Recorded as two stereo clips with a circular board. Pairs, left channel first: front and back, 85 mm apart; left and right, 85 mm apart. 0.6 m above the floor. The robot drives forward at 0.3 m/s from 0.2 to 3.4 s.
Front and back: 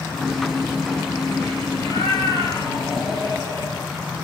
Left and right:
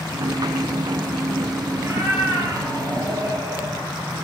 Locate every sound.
1.8 s a cat meowing: 35° right, 5.5 m